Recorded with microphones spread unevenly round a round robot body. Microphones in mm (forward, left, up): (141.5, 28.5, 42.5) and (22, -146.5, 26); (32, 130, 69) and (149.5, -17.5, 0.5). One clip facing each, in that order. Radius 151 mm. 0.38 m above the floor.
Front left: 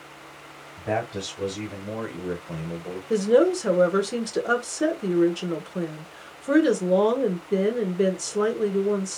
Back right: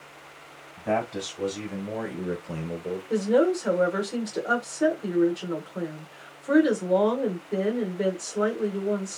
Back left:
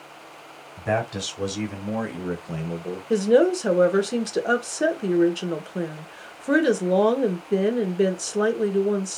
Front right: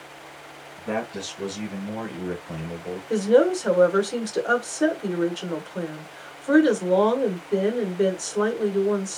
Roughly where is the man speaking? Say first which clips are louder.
Back right 1 dB, back left 3 dB; behind left.